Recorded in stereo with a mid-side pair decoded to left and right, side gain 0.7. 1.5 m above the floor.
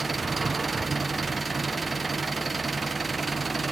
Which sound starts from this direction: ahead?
An engine running, at 0.0 s.